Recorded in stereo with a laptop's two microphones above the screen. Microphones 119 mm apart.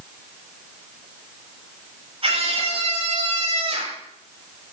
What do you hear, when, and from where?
2.2 s a scream: 55° right (ahead or behind), 7 m; by 4.0 s 70° right (ahead or behind), 6 m